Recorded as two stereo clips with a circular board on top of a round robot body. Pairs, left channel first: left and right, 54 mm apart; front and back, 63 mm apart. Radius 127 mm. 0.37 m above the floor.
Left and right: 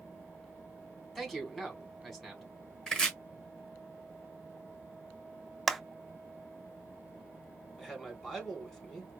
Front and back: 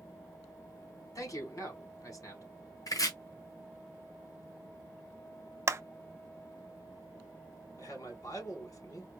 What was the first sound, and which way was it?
A man speaking, 5° left.